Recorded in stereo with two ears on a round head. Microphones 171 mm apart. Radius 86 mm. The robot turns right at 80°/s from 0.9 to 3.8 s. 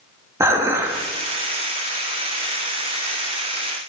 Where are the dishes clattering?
15° right (ahead or behind), 1.3 m; by 1.1 s 5° right (ahead or behind), 1.3 m.